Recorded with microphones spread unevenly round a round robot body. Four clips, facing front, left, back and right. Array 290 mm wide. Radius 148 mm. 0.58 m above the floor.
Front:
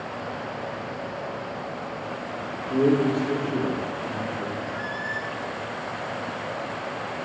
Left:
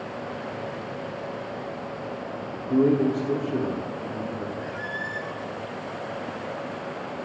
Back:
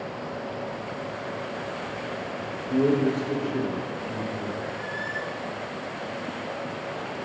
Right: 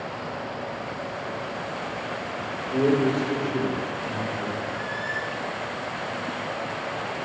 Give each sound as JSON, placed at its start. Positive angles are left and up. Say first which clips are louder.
{"t": 2.7, "sound": "a man speaking", "louder": "left 1 dB, front 1 dB", "azimuth_deg": 70, "distance_m": 1.4}
{"t": 4.6, "sound": "a squeak", "louder": "right 2 dB, front 1 dB", "azimuth_deg": 60, "distance_m": 1.8}